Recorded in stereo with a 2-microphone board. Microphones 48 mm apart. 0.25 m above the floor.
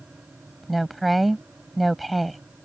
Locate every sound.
0.6 s a woman speaking: centre (ahead or behind)